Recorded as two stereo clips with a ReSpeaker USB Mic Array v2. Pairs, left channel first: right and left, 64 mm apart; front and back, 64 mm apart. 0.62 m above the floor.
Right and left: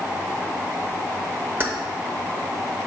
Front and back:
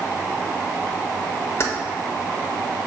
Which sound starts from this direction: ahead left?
Keys jangling, at 1.6 s.